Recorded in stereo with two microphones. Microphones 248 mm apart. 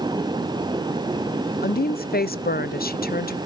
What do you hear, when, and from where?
1.6 s a woman speaking: 40° left (ahead or behind), 0.6 m